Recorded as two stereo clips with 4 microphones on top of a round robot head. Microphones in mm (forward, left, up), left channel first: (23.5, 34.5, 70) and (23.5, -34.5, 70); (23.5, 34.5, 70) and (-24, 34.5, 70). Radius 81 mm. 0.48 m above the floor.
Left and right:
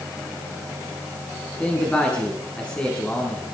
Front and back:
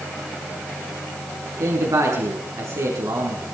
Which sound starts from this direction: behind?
A man speaking, at 1.6 s.